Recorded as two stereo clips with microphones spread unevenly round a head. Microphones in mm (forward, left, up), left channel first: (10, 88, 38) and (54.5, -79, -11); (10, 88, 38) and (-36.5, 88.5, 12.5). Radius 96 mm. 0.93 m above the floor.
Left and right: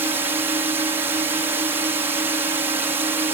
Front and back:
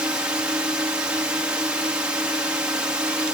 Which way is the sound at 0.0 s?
140° right.